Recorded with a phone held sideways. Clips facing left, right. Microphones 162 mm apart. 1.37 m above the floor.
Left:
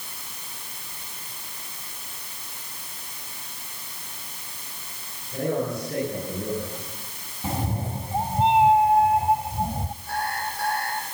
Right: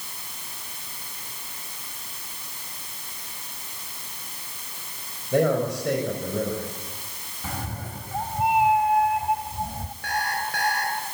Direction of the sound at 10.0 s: 80° right.